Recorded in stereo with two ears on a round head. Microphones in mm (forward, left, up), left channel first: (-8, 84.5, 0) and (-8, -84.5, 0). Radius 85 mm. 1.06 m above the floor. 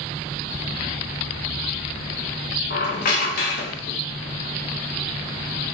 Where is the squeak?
50° left (ahead or behind), 0.6 m.